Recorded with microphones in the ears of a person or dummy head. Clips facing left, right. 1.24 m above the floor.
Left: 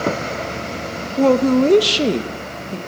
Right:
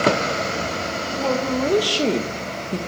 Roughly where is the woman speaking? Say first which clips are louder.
Left 9 dB; left.